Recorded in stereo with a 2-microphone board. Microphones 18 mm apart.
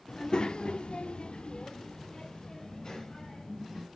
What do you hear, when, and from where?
0.1 s a child speaking: 40° left (ahead or behind), 1.4 m; by 3.9 s 35° left (ahead or behind), 4 m